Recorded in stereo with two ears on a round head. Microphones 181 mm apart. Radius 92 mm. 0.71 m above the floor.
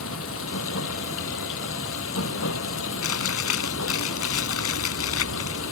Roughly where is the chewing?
Left.